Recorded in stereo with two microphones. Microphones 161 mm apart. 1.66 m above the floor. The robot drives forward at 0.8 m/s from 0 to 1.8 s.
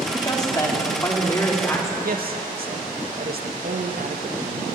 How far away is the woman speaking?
About 3 m.